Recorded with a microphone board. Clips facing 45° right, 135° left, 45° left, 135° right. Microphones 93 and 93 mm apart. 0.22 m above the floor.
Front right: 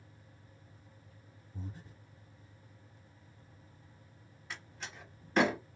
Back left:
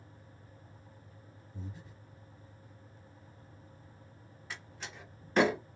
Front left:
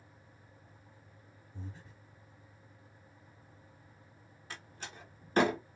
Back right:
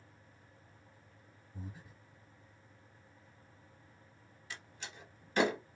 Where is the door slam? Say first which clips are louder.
Even, front left 2 dB; 45° left, 0.8 m.